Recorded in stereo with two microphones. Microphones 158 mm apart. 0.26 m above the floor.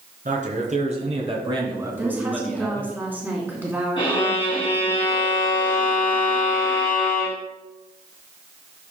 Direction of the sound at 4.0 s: 30° left (ahead or behind).